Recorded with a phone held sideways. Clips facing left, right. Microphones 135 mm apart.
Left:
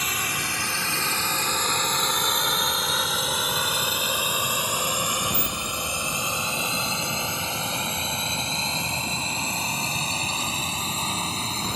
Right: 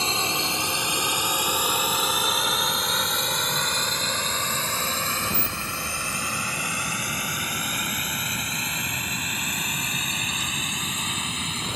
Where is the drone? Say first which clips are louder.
Right 4 dB; 25° right (ahead or behind); by 11.8 s 35° left (ahead or behind).